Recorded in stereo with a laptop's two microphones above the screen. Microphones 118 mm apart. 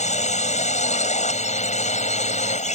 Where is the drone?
75° left (ahead or behind).